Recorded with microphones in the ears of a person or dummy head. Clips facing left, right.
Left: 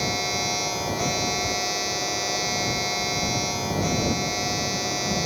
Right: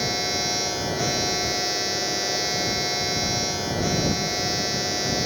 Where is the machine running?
15° right (ahead or behind).